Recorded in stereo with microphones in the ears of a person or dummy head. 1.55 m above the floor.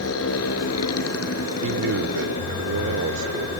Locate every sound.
0.0 s a motorcycle: 85° left
1.6 s a man speaking: 65° right (ahead or behind)